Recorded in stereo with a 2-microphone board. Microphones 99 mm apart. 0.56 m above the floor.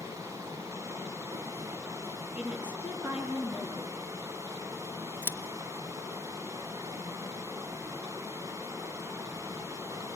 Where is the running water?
35° right (ahead or behind), 1.5 m.